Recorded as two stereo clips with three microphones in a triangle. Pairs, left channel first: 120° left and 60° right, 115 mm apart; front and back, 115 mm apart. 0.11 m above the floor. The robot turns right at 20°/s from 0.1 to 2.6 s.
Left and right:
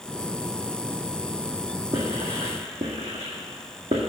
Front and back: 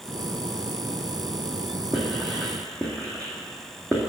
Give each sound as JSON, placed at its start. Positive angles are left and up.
{"t": 1.9, "sound": "writing", "azimuth_deg": -95, "distance_m": 1.9}